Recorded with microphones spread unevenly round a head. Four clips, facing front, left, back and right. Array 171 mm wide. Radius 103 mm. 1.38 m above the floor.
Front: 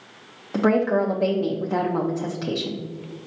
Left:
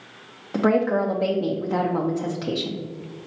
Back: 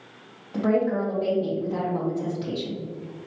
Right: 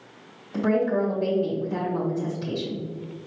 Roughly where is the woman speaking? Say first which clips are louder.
Left 3 dB, front 3 dB; ahead left.